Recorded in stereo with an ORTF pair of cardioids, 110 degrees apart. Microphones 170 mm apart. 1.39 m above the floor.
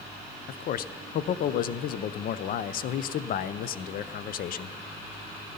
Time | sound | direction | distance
0.5 | a man speaking | 55° left | 0.6 m